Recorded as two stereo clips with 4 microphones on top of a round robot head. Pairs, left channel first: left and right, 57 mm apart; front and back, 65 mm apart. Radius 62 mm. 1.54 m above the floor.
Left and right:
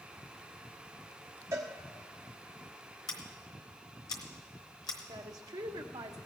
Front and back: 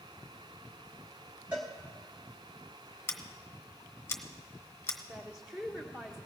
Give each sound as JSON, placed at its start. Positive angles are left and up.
{"t": 1.5, "sound": "a cowbell", "azimuth_deg": -110, "distance_m": 1.3}
{"t": 3.1, "sound": "scissors", "azimuth_deg": 50, "distance_m": 1.0}
{"t": 5.1, "sound": "a woman speaking", "azimuth_deg": -100, "distance_m": 1.2}